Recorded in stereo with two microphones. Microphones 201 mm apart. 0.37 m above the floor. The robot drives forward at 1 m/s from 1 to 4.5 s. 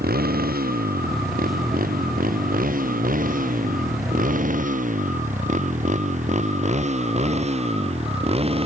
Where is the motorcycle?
50° right (ahead or behind); by 8.7 s 30° right (ahead or behind).